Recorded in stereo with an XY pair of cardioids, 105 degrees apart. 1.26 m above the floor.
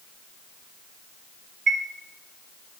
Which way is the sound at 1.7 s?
40° right.